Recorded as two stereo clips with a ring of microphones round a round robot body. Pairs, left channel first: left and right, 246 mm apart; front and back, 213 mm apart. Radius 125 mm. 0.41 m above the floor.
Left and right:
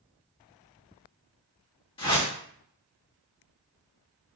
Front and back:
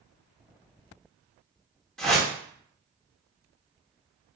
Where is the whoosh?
80° left, 1.4 m.